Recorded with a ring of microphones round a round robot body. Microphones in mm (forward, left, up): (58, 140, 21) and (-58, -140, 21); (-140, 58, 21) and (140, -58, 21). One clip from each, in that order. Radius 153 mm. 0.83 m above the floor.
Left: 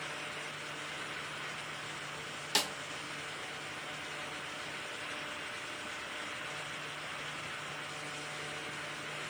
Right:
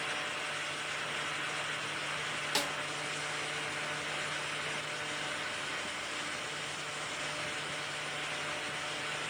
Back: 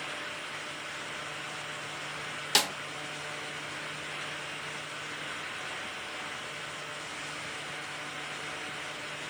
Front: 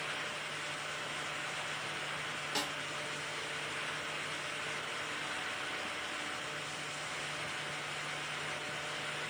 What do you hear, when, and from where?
2.5 s a snare drum: 145° left, 0.5 m